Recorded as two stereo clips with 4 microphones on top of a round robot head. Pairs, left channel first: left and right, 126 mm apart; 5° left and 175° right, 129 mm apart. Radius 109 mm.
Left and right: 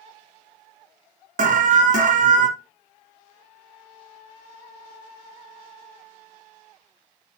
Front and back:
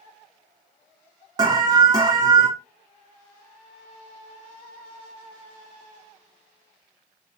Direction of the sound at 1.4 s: 115° right.